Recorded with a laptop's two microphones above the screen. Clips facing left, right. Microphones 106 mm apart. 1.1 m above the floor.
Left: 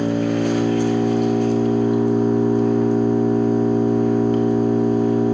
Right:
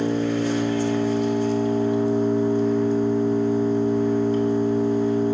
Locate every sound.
0.0 s an engine running: 60° left (ahead or behind), 1.0 m